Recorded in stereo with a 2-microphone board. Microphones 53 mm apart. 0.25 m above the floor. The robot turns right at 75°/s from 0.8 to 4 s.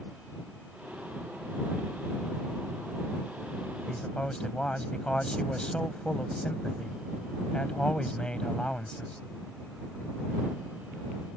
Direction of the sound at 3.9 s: 15° left (ahead or behind).